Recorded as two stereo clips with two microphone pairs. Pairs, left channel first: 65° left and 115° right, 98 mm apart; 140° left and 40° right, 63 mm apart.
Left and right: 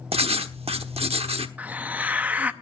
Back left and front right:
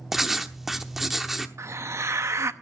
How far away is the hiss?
About 0.7 m.